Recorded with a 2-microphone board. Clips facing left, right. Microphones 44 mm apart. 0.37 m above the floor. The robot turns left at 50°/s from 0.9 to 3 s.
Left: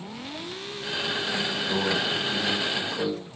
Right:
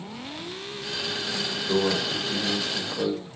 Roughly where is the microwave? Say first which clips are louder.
Right 3 dB; right.